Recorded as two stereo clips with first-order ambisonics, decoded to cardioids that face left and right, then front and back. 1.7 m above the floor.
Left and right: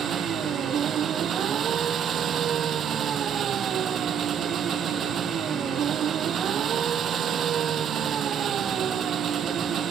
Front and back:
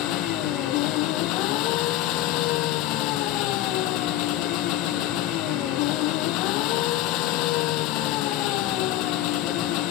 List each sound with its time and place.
0.0 s an engine running: 25° right